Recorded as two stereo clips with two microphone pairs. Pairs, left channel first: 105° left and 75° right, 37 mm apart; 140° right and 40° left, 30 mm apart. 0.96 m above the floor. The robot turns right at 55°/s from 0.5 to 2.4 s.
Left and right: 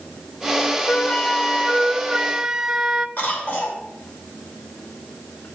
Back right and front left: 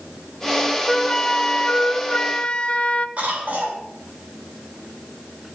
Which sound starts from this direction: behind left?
A flute, at 0.9 s.